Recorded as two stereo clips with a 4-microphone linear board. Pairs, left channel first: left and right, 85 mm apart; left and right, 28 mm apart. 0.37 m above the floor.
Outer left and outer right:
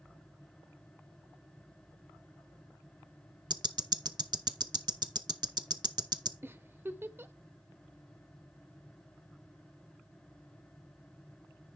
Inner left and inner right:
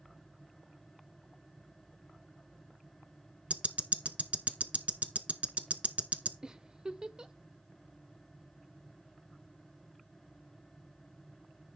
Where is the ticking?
60° right (ahead or behind), 0.6 m.